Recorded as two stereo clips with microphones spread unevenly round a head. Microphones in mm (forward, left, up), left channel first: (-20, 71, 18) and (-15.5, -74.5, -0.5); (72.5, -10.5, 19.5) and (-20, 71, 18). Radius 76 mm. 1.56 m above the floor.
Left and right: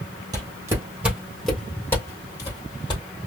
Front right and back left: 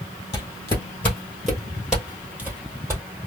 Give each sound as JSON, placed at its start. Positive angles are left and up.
{"t": 0.3, "sound": "footsteps", "azimuth_deg": -45, "distance_m": 1.6}